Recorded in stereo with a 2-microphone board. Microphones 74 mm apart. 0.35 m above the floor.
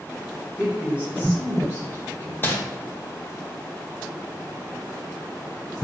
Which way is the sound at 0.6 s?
10° right (ahead or behind).